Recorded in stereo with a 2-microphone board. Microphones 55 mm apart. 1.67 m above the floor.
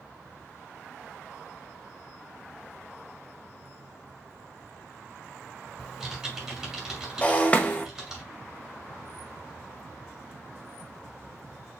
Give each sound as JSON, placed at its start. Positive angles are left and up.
{"t": 5.8, "sound": "typing on a keyboard", "side_deg": -5, "distance_m": 2.5}
{"t": 7.2, "sound": "breaking glass", "side_deg": 25, "distance_m": 0.8}